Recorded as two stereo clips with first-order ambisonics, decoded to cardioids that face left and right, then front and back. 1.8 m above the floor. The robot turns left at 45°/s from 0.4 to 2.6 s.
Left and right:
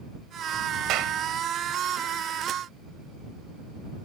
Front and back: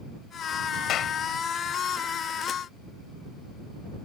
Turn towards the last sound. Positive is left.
turn(degrees=-125)